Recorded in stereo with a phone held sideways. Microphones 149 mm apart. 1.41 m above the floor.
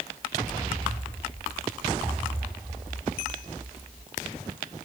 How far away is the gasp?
I don't hear a gasp.